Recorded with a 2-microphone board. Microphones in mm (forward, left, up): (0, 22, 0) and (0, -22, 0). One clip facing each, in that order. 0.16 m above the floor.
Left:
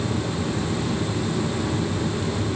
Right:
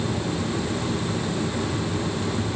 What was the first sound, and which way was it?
Only background noise.